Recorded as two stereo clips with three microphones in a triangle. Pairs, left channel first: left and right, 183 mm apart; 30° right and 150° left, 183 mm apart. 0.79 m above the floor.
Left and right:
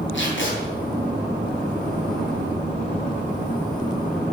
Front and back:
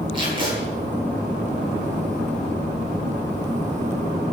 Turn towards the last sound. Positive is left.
turn(degrees=85)